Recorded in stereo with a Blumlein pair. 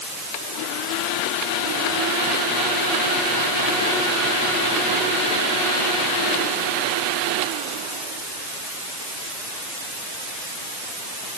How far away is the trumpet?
No trumpet in this recording.